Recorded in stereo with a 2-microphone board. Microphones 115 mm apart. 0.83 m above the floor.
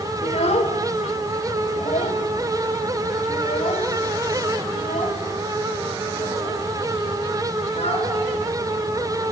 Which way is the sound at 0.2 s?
70° left (ahead or behind).